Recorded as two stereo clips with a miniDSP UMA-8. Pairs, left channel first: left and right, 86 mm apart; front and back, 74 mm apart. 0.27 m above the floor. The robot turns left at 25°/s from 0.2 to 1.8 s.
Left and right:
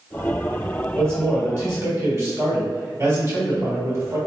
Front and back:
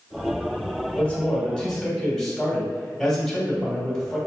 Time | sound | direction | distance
0.9 | a man speaking | 60° right | 1.4 m